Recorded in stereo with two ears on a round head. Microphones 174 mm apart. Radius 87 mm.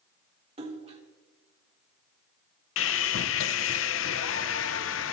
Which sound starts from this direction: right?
A splash, at 0.6 s.